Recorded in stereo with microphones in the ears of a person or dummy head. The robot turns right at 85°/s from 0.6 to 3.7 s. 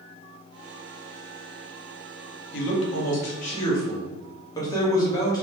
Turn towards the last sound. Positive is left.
turn(degrees=165)